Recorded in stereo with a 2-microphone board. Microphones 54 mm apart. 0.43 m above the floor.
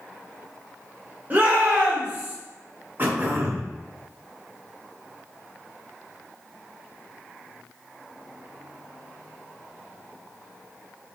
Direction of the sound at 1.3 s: 35° right (ahead or behind).